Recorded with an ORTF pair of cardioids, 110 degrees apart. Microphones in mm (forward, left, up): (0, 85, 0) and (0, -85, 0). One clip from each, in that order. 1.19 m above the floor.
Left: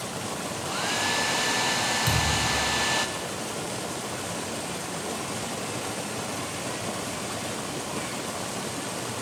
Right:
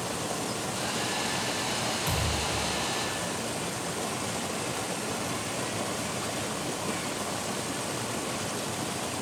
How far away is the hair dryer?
About 0.7 m.